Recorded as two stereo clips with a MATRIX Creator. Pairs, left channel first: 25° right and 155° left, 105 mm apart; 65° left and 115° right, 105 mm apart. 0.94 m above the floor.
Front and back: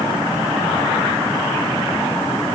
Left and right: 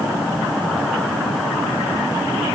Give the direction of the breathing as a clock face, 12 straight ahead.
No breathing in this recording.